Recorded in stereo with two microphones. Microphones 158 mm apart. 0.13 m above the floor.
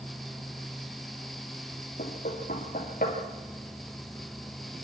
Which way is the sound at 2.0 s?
65° left (ahead or behind).